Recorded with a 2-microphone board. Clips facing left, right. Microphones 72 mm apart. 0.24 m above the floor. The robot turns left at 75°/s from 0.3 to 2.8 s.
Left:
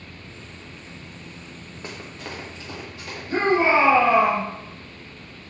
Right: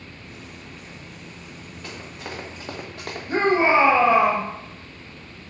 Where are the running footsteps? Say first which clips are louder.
Even; 30° left (ahead or behind), 1.5 m; by 3.2 s 70° right (ahead or behind), 1.6 m.